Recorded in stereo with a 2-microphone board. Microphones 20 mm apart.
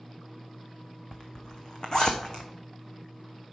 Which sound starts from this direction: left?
A zipper, at 1.1 s.